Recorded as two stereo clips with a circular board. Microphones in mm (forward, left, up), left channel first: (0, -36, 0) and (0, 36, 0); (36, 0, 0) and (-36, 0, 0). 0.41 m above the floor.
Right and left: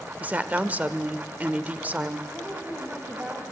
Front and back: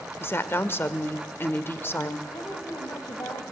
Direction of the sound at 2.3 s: 25° left.